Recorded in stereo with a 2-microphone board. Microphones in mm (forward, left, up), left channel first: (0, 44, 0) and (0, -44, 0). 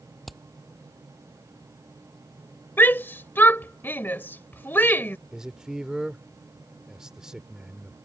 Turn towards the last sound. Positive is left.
turn(degrees=-10)  # may be behind; listen again after turning